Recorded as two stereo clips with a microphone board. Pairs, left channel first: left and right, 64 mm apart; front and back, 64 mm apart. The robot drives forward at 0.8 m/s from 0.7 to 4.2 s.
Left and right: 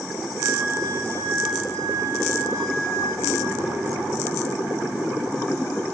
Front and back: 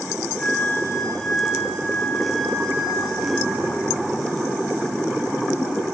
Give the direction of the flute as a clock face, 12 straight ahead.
2 o'clock.